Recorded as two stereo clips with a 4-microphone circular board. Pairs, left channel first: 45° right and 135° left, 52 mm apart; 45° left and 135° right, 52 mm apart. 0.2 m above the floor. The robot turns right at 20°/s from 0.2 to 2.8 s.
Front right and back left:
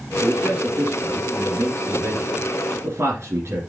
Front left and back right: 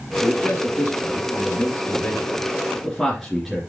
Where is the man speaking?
75° left, 3 m; by 3.6 s 130° left, 3 m.